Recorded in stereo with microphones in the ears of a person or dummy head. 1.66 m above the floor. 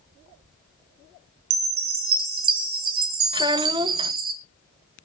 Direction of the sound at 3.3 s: 25° right (ahead or behind).